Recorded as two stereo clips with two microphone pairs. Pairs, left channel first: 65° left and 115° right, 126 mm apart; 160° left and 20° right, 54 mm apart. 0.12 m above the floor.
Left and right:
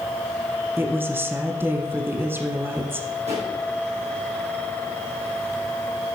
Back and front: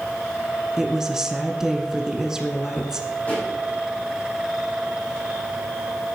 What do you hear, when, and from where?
0.8 s a woman speaking: 85° right, 1.1 m
3.3 s a pop: 140° right, 5.5 m